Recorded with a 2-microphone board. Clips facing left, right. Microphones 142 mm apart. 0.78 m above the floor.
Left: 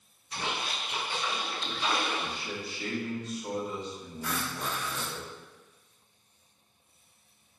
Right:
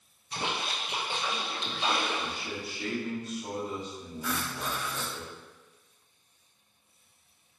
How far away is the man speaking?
About 1.5 m.